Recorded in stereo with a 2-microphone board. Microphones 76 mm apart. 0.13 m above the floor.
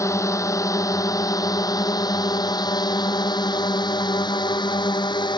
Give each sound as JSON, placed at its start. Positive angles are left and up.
{"t": 0.0, "sound": "a drone", "side_deg": 40}